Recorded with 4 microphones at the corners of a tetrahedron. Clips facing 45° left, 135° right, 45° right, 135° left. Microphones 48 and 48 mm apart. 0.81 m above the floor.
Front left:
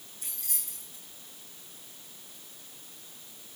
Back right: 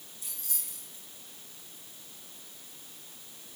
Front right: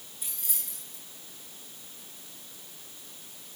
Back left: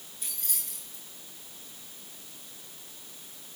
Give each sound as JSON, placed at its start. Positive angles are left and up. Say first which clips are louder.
{"t": 0.2, "sound": "keys jangling", "louder": "front left 2 dB, back left 1 dB", "azimuth_deg": 40, "distance_m": 9.5}